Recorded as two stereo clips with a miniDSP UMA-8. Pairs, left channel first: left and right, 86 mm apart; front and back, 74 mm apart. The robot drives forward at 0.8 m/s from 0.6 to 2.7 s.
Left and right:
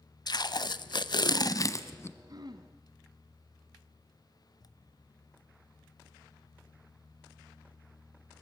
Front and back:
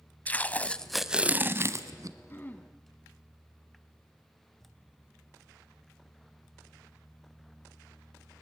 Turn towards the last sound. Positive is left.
turn(degrees=-70)